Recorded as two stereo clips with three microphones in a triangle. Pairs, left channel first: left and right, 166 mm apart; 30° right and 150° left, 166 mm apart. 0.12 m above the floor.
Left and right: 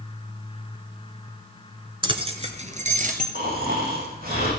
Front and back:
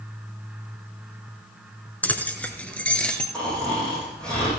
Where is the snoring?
115° right, 7.5 m.